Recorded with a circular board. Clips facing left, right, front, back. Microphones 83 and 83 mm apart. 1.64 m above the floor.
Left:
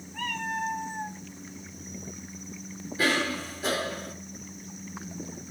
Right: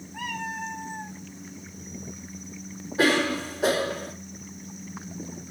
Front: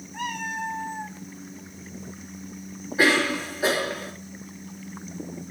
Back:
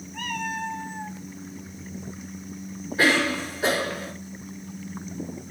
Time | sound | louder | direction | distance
0.1 | a cat meowing | left 1 dB, even | 40° right | 1.0 m
3.0 | a cough | right 5 dB, even | 75° right | 4 m